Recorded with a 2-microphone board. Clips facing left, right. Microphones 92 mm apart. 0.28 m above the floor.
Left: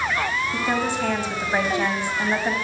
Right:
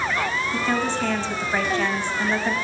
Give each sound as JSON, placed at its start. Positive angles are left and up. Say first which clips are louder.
{"t": 0.5, "sound": "a woman speaking", "louder": "right 1 dB", "side_deg": 15, "distance_m": 1.3}